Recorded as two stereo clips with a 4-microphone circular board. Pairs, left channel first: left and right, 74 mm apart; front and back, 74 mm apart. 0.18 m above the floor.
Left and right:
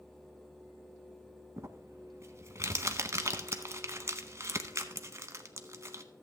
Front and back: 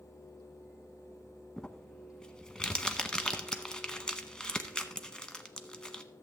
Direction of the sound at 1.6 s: 75° right.